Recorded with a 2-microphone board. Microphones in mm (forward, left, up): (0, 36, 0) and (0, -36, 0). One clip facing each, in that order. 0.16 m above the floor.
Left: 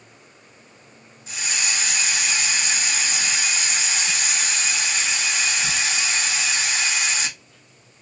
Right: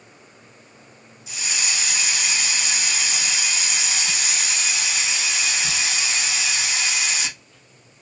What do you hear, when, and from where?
1.3 s a hiss: 45° left (ahead or behind), 2.5 m